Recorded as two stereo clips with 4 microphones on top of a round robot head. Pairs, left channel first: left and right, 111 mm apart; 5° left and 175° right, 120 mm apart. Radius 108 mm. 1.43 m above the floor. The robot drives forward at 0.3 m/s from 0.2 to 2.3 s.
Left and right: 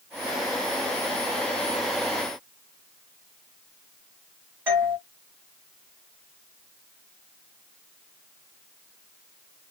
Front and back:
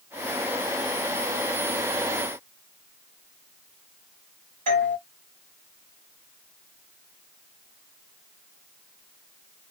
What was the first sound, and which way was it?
A doorbell, 165° right.